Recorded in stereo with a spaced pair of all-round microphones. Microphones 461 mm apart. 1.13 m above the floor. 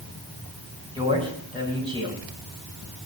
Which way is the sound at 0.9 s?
10° right (ahead or behind).